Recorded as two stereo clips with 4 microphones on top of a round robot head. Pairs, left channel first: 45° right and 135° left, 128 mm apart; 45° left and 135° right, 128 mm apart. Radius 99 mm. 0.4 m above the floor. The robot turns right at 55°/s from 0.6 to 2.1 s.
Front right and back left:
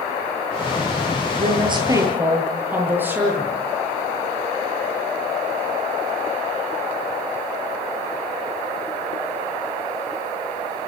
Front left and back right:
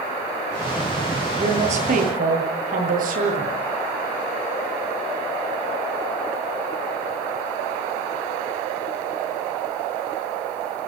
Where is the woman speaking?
170° left, 9.5 m; by 3.6 s 150° right, 9.5 m.